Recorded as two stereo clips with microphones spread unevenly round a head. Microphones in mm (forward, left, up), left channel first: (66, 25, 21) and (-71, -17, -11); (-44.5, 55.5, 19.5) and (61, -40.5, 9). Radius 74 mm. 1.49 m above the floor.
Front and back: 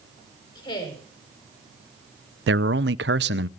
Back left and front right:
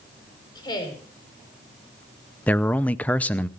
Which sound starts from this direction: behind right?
A man speaking, at 2.5 s.